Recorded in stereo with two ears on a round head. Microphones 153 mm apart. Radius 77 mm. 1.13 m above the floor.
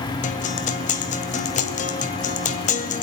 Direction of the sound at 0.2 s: 45° left (ahead or behind).